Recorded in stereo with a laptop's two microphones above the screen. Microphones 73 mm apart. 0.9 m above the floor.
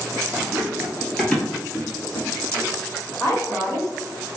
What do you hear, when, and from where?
0.4 s running footsteps: 35° right (ahead or behind), 1.0 m; by 2.7 s 55° left (ahead or behind), 1.7 m
3.2 s a woman speaking: 45° left (ahead or behind), 1.3 m